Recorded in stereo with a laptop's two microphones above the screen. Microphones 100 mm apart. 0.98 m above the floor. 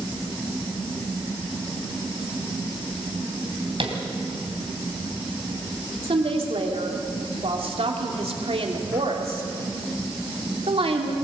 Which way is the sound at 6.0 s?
80° right.